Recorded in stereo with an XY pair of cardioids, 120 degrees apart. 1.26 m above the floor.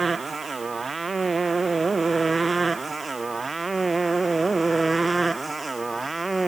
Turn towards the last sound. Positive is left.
turn(degrees=-15)